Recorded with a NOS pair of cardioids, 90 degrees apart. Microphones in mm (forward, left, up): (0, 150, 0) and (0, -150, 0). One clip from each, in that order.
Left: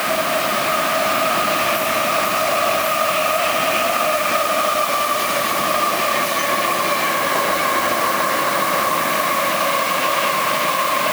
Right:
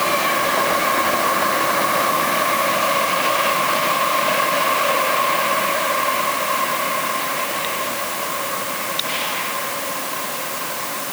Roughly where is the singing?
I don't hear singing.